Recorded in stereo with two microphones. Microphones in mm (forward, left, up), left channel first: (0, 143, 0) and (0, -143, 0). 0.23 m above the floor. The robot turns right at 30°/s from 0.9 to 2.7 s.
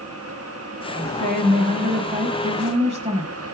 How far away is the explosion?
I don't hear an explosion.